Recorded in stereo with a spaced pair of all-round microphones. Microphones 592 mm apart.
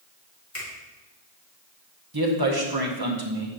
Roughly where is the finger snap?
Left.